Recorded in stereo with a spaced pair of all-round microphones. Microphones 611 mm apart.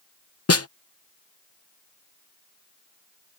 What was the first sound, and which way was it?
A snare drum, 25° left (ahead or behind).